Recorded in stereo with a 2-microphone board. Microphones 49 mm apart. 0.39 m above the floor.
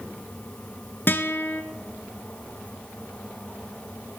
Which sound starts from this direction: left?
A guitar, at 1.1 s.